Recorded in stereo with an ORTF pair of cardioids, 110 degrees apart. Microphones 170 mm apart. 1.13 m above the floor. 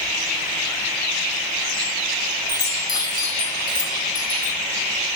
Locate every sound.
2.5 s a chime: 25° left, 2.5 m